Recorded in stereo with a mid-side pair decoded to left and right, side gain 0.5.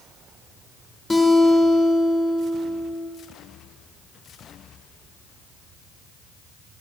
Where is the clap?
I don't hear a clap.